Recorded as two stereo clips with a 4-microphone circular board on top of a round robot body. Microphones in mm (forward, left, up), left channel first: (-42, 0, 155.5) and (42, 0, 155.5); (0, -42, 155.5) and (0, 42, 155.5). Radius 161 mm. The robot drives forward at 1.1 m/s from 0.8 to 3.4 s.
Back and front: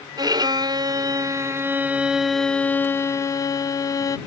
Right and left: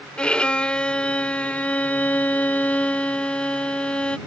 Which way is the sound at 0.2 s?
15° right.